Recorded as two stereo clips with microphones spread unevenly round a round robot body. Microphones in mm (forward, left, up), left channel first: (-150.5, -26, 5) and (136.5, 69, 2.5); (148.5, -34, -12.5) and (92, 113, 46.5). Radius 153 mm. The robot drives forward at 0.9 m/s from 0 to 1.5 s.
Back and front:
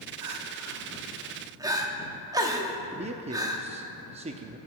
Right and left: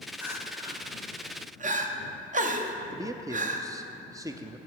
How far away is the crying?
About 1.5 m.